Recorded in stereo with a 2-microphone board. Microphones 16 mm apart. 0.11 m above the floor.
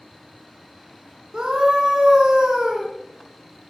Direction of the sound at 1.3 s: 55° right (ahead or behind).